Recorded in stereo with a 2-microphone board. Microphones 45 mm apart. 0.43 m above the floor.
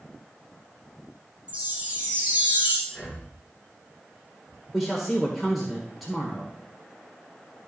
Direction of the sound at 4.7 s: Centre (ahead or behind).